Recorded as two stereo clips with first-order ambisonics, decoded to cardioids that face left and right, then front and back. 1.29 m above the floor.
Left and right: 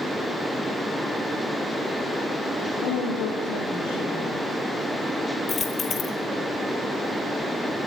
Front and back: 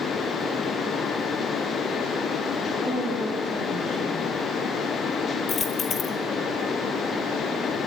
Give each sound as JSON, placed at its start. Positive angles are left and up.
{"t": 2.8, "sound": "a woman speaking", "azimuth_deg": 80, "distance_m": 3.5}
{"t": 5.5, "sound": "a dropped coin", "azimuth_deg": 40, "distance_m": 1.5}